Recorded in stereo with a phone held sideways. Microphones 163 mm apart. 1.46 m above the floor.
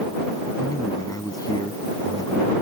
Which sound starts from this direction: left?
A man speaking, at 0.6 s.